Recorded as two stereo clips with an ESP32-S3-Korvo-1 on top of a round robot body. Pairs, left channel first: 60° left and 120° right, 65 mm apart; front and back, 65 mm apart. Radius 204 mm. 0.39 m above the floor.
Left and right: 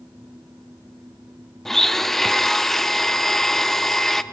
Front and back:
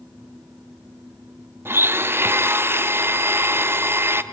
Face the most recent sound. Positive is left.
turn(degrees=145)